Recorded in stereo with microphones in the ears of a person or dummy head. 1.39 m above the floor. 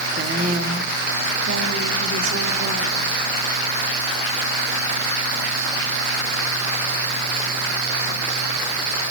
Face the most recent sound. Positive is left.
turn(degrees=-75)  # may be behind; listen again after turning